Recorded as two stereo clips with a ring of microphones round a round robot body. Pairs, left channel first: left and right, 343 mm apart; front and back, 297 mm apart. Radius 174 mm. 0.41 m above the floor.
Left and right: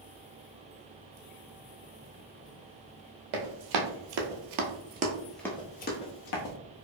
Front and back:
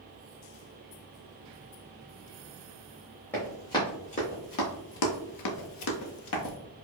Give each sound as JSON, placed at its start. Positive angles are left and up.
{"t": 3.3, "sound": "running footsteps", "azimuth_deg": -85, "distance_m": 1.2}